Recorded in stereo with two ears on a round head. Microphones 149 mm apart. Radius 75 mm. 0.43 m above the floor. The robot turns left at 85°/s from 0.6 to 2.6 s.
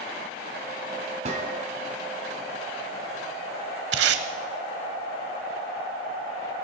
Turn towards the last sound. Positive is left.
turn(degrees=-75)  # may be behind; listen again after turning